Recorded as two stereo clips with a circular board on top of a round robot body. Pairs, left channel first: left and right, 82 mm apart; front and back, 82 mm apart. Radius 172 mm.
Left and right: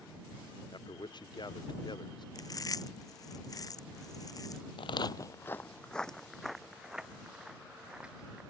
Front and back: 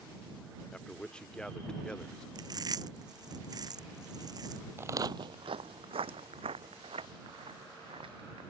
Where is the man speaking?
80° left.